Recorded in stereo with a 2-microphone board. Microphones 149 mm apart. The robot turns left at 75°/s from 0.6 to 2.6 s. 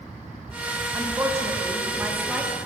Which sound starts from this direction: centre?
A woman speaking, at 0.9 s.